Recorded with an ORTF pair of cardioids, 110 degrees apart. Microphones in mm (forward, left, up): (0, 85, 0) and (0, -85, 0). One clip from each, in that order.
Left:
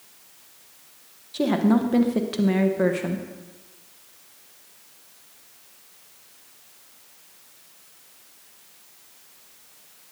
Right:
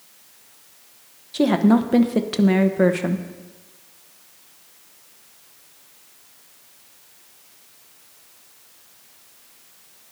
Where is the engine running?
No engine running in this recording.